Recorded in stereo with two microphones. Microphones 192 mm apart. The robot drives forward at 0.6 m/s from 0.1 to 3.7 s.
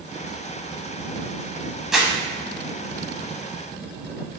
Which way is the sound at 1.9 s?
Centre (ahead or behind).